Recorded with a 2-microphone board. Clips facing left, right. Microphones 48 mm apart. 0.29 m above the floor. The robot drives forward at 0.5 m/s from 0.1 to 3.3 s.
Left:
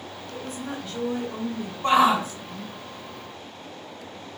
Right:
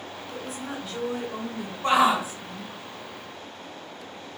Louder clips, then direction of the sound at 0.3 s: Left 1 dB; 5° right (ahead or behind).